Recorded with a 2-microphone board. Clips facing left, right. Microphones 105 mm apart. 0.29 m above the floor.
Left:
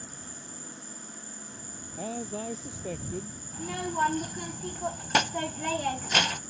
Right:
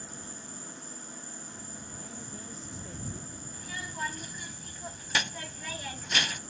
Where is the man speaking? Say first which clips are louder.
Left 15 dB; 80° left.